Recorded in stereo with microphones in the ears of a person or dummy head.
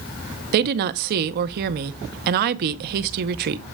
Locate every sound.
0.5 s a woman speaking: 55° right (ahead or behind), 0.6 m